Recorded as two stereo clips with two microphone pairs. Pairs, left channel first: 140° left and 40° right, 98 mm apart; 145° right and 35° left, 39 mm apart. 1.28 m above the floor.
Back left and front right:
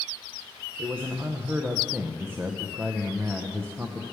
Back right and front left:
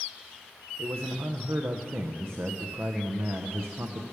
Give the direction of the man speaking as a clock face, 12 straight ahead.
11 o'clock.